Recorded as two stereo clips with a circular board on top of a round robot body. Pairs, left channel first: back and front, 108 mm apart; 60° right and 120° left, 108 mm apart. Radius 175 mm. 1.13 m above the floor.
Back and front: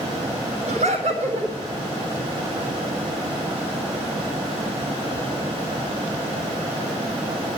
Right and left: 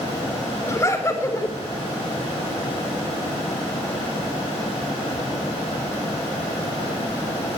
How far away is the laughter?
About 8.5 m.